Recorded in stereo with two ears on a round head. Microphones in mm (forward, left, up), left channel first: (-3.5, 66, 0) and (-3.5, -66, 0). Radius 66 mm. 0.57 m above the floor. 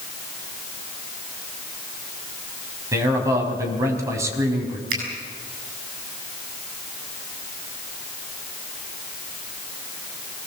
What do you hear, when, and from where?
2.9 s a man speaking: 20° right (ahead or behind), 4.5 m
4.9 s a finger snap: 65° right (ahead or behind), 7.5 m